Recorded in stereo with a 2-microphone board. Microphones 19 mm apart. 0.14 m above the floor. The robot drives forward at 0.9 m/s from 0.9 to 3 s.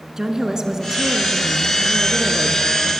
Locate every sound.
0.2 s a woman speaking: 30° right (ahead or behind), 1.9 m; by 2.9 s 20° right (ahead or behind), 2.5 m